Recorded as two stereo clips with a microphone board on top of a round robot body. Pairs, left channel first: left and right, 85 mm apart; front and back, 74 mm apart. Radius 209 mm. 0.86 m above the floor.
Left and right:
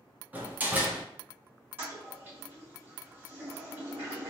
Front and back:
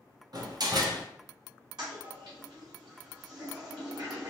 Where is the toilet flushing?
155° right, 1.8 m.